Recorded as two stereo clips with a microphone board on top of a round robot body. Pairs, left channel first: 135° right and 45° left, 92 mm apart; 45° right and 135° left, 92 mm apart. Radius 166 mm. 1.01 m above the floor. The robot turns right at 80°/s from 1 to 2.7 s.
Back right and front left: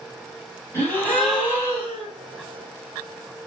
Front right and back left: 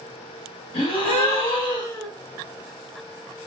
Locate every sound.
0.7 s a gasp: 70° right, 1.6 m; by 2.1 s 20° left, 1.6 m